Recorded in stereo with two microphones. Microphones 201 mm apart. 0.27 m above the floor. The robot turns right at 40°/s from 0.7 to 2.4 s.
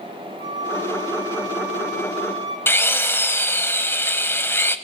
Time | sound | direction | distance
0.4 | a flute | 100° right | 6 m
2.7 | a drill | 10° left (ahead or behind) | 0.9 m